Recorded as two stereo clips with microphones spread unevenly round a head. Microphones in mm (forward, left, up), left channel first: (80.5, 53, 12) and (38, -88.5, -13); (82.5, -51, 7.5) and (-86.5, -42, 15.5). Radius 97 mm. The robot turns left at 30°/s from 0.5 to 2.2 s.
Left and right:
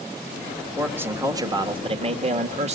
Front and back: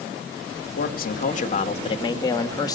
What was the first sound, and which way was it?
A man speaking, 25° right.